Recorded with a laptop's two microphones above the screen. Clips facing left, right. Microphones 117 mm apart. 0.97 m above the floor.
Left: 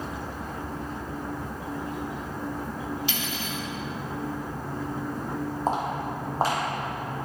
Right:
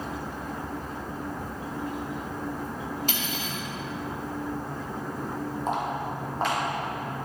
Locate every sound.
3.1 s cutlery clinking: 45° right (ahead or behind), 1.2 m
5.7 s footsteps: 35° left (ahead or behind), 1.7 m; by 7.3 s 40° left (ahead or behind), 2.5 m